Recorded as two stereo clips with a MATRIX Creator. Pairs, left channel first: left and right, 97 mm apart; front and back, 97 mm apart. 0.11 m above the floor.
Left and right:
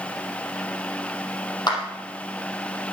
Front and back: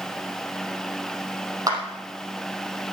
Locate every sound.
1.7 s a clap: 130° left, 3.5 m